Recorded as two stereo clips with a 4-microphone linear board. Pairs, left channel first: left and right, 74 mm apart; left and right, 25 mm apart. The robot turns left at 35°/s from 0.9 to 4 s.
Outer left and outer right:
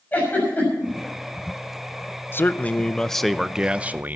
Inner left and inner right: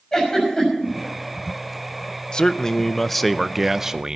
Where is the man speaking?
35° left, 0.5 m; by 4.2 s 25° right, 0.5 m.